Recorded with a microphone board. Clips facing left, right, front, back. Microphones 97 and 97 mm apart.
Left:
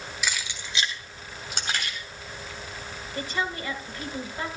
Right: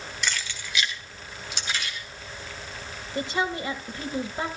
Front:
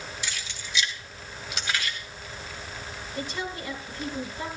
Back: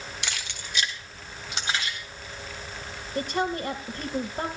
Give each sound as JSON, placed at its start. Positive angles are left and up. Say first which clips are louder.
{"t": 0.2, "sound": "keys jangling", "louder": "right 1 dB, back 1 dB", "azimuth_deg": 175, "distance_m": 1.4}
{"t": 3.1, "sound": "a woman speaking", "louder": "right 3 dB, back 7 dB", "azimuth_deg": -155, "distance_m": 2.5}